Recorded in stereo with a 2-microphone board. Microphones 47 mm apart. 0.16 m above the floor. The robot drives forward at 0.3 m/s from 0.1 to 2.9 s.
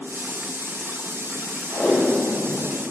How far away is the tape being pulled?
About 1.1 m.